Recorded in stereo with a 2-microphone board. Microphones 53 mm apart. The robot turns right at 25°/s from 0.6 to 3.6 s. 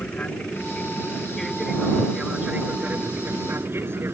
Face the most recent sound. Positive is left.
turn(degrees=-45)  # may be behind; listen again after turning